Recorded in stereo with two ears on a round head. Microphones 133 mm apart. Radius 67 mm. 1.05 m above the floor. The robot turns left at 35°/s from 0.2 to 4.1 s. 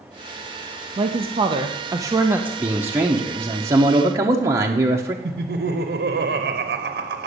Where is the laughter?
65° right (ahead or behind), 0.7 m.